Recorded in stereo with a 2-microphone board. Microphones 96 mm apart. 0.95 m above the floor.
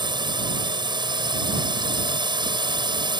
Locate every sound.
0.0 s a drone: 50° right (ahead or behind)